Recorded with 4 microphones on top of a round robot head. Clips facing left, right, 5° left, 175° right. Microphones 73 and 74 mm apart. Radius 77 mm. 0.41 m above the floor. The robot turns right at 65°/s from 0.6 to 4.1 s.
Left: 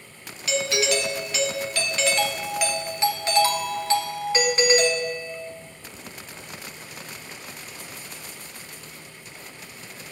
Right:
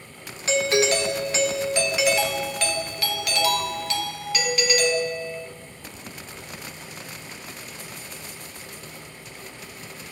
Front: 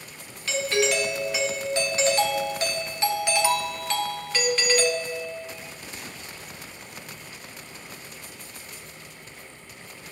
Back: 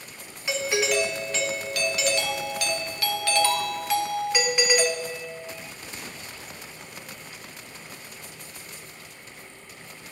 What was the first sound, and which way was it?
A doorbell, 110° right.